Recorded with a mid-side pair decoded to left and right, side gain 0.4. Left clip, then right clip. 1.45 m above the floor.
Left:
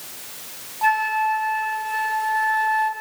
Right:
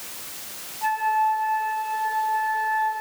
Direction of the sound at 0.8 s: 70° left.